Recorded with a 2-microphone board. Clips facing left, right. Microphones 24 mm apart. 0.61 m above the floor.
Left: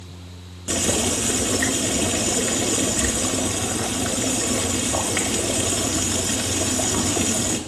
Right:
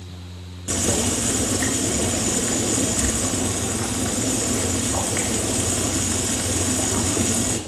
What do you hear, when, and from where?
0.7 s boiling: 15° left (ahead or behind), 1.4 m